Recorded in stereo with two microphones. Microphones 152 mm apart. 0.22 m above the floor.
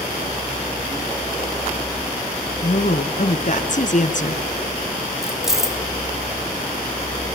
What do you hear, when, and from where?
2.6 s a woman speaking: 55° left (ahead or behind), 3 m
5.2 s keys jangling: 5° right (ahead or behind), 1.1 m